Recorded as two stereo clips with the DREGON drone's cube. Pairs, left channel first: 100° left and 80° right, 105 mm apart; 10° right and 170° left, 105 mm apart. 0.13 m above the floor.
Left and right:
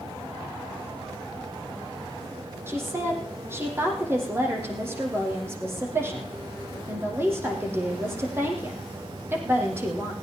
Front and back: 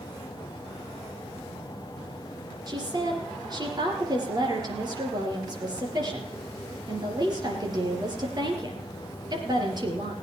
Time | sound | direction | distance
2.7 | a woman speaking | 145° right | 4 m